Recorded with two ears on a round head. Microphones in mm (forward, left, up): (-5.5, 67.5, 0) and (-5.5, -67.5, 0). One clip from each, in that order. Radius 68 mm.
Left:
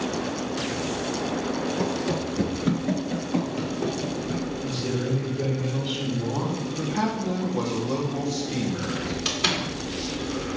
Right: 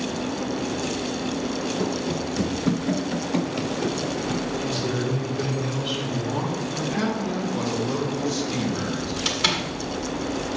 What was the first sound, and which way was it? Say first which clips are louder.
Running footsteps: even; 40° left (ahead or behind).